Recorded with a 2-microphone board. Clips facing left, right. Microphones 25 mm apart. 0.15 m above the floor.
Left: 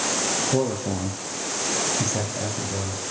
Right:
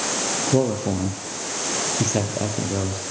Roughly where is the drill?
I don't hear a drill.